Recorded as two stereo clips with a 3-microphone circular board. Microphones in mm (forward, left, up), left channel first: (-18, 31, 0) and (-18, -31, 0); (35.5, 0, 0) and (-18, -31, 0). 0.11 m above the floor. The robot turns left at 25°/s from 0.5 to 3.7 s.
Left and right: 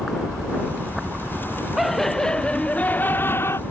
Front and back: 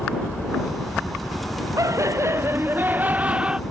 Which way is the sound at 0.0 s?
30° right.